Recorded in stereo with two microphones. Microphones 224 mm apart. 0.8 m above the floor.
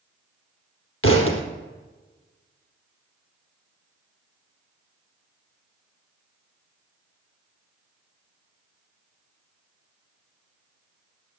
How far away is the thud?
About 3.5 m.